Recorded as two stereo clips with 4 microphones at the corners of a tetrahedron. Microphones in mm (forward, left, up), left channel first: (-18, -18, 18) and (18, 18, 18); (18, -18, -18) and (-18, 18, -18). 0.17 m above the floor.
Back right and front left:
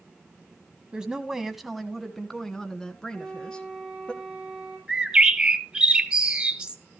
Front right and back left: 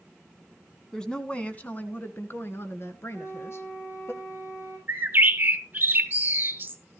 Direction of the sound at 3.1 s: 35° right.